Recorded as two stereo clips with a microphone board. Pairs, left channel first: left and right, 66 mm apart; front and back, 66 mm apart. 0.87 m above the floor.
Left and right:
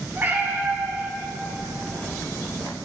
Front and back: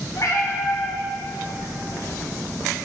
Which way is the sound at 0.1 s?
30° right.